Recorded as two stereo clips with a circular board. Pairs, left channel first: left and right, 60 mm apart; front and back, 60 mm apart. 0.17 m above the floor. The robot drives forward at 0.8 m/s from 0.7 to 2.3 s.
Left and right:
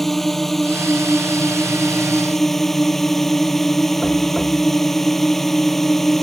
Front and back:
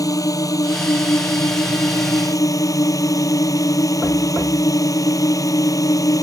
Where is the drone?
5° left.